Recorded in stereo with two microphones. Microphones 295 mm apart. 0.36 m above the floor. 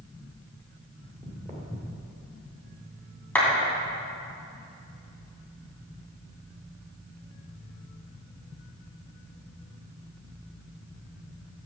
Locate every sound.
1.0 s footsteps: 30° right (ahead or behind), 2.5 m; by 2.1 s 15° right (ahead or behind), 3.5 m
3.4 s a clap: 5° left (ahead or behind), 2.5 m